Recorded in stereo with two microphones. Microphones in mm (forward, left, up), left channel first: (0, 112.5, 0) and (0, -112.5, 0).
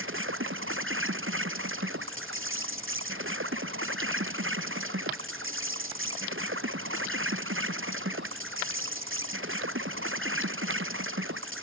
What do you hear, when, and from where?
0.0 s an insect: 60° right (ahead or behind)